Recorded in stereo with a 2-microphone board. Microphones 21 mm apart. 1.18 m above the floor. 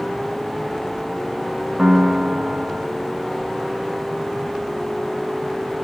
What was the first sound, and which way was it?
A piano, 35° right (ahead or behind).